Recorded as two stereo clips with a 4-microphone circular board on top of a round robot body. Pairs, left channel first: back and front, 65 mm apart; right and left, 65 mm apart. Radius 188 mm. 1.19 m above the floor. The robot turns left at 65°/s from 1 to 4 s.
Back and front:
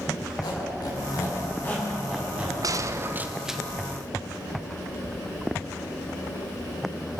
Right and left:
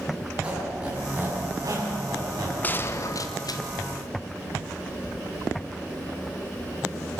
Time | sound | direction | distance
0.4 | a squeak | 165° left | 8 m
2.6 | a gunshot | 25° right | 1.3 m